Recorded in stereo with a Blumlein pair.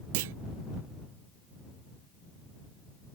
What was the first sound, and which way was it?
A clunk, 50° right.